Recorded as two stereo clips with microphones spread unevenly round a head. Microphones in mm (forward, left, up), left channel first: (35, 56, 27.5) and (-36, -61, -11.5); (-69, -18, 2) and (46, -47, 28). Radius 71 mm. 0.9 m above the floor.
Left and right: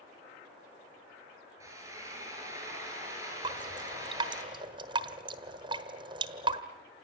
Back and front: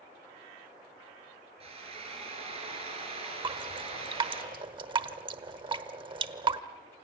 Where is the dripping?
60° right, 1.3 m.